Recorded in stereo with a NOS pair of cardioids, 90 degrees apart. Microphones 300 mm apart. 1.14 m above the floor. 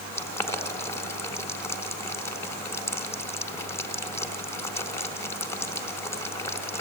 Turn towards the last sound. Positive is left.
turn(degrees=10)